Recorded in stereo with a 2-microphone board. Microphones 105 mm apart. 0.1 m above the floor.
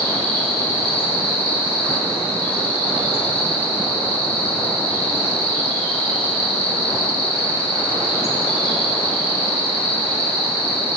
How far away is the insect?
About 4 m.